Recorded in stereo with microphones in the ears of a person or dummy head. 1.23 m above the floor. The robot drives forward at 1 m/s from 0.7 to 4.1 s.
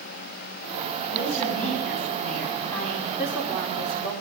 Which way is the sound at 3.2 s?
5° right (ahead or behind).